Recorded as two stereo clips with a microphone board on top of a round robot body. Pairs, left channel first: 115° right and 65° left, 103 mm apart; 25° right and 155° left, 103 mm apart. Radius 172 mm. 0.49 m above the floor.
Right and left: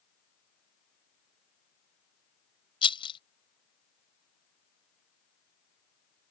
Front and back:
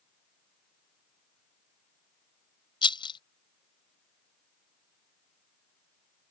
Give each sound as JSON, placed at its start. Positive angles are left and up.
{"t": 2.8, "sound": "a rattle", "azimuth_deg": -70}